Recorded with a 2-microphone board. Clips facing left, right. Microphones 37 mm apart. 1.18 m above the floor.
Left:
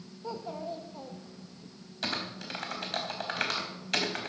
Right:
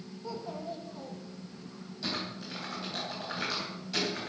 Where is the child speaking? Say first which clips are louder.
Left 2 dB; 20° left (ahead or behind), 1.1 m.